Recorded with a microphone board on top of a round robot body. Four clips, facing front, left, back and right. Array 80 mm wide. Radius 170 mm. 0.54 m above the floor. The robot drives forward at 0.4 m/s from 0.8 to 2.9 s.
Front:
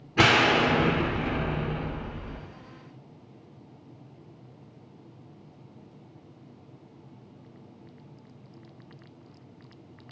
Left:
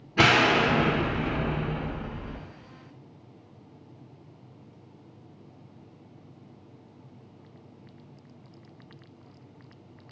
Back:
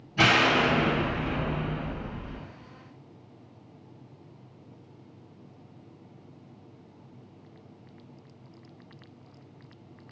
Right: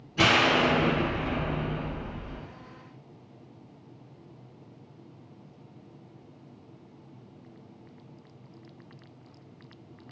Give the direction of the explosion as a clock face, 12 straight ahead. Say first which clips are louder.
Left 2 dB, front 1 dB; 11 o'clock.